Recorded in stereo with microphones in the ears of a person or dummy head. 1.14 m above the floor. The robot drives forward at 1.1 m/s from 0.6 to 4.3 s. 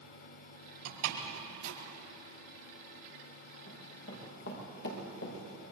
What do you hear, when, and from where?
0.8 s a door slam: 75° right (ahead or behind), 6 m; by 1.7 s 85° right, 5.5 m
3.7 s running footsteps: 60° left (ahead or behind), 7.5 m; by 5.6 s 75° left (ahead or behind), 7.5 m